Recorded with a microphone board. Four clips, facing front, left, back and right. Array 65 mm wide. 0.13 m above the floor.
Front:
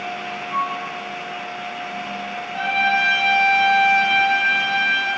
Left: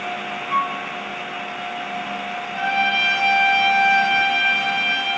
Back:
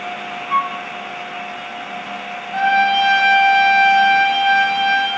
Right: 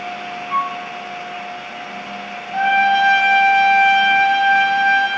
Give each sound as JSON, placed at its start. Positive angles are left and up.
{"t": 0.5, "sound": "a flute", "azimuth_deg": 175, "distance_m": 1.1}
{"t": 2.5, "sound": "a trumpet", "azimuth_deg": -140, "distance_m": 5.0}